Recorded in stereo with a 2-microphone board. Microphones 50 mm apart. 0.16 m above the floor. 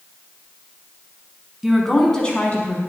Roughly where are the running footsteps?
No running footsteps in this recording.